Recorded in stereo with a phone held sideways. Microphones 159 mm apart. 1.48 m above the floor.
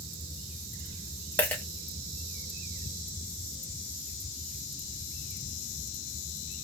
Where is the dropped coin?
10° left (ahead or behind), 0.8 m.